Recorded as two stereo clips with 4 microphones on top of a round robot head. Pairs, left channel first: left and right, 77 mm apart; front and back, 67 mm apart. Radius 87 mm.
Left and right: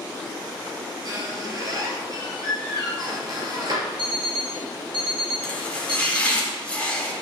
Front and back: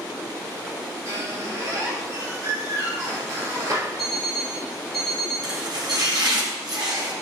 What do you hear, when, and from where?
1.1 s a squeak: 130° right, 4 m
4.0 s an alarm clock: 90° right, 1.2 m
5.4 s chopping: 165° left, 4 m